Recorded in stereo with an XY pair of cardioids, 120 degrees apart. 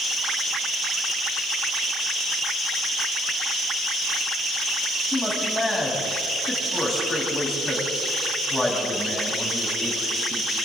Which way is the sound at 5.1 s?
10° left.